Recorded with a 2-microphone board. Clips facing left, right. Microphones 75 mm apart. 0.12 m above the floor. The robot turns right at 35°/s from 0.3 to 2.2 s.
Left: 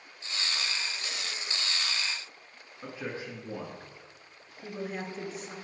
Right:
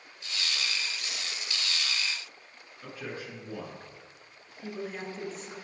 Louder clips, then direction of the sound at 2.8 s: Left 2 dB; 25° left (ahead or behind).